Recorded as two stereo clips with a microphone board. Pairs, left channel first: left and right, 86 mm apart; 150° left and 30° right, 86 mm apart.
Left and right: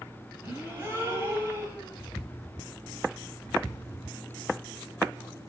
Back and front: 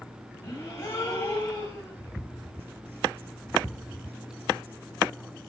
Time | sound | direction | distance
0.4 | a gasp | 160° right | 5.5 m